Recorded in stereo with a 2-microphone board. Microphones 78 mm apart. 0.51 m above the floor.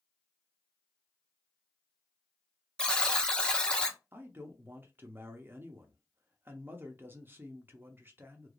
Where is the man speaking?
25° right (ahead or behind), 0.7 m.